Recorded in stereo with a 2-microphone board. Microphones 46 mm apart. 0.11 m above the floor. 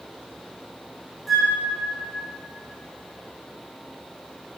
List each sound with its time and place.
1.3 s a flute: centre (ahead or behind), 4 m